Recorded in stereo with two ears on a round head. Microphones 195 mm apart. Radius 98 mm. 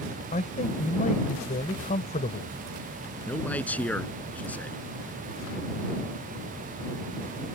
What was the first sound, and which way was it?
A man speaking, 35° left (ahead or behind).